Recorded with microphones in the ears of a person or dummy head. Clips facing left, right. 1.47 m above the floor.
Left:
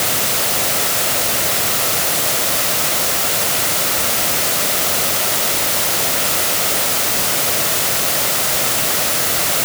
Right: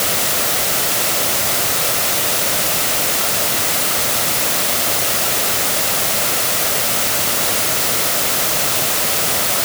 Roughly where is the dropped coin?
I don't hear a dropped coin.